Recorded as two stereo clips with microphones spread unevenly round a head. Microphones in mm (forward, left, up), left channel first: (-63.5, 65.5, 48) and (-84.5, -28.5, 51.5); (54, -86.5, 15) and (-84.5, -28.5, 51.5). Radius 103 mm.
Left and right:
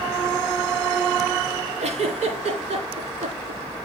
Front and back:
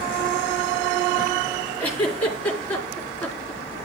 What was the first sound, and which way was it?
A giggle, 100° right.